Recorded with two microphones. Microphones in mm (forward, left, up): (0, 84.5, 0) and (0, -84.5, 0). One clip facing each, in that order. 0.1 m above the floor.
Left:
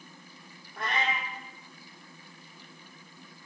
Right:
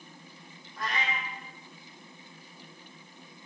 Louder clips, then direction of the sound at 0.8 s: Left 2 dB; 65° left (ahead or behind).